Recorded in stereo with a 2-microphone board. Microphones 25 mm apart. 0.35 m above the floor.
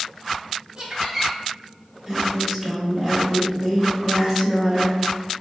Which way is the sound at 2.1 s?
5° right (ahead or behind).